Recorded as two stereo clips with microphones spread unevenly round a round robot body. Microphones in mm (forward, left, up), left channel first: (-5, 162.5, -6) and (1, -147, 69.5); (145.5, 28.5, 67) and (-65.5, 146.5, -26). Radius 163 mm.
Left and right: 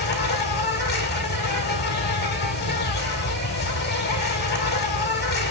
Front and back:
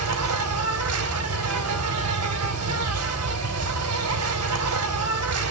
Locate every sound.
0.0 s an insect: 150° left, 3 m